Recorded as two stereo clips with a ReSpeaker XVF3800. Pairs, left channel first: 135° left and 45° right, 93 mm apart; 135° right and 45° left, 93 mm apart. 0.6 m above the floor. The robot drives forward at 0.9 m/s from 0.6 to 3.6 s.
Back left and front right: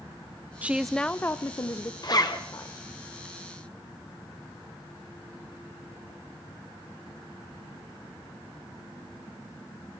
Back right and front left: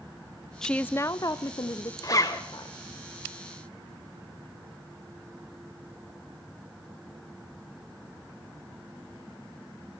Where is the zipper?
175° left, 2.5 m.